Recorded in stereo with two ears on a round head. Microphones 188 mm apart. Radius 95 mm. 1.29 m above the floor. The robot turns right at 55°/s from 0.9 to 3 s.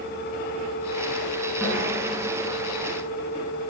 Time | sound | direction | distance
1.6 | a snare drum | 5° right (ahead or behind) | 5 m